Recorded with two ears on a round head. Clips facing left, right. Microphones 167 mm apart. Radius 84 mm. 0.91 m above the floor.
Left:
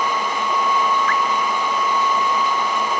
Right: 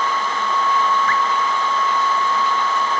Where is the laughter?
I don't hear laughter.